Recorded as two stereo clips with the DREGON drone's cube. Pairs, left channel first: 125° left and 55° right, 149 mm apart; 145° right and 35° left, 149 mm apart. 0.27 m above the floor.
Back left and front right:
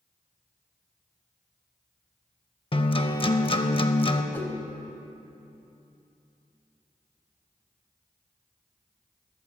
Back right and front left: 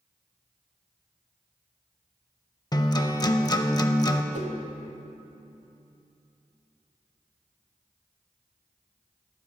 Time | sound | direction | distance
2.7 | a guitar | 160° left | 0.5 m
4.3 | a whoosh | 50° left | 1.0 m